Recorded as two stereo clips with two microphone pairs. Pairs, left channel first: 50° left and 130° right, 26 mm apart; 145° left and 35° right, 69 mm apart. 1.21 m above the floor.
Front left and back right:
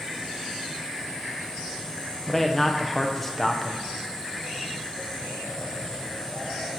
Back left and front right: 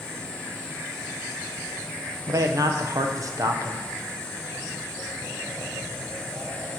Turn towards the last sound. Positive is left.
turn(degrees=-30)